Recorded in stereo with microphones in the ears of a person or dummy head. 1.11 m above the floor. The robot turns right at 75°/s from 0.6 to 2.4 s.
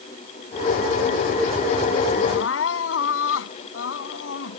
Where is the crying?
75° left (ahead or behind); by 4.6 s 70° left (ahead or behind).